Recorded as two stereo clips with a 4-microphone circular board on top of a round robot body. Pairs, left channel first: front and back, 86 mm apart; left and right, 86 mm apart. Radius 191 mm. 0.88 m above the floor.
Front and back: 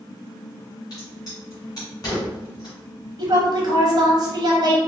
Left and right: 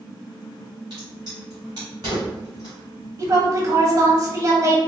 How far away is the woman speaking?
About 0.9 m.